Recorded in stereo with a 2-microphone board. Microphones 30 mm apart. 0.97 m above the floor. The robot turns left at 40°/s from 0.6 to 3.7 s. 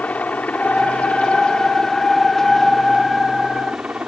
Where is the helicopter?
70° left; by 4.1 s 50° right.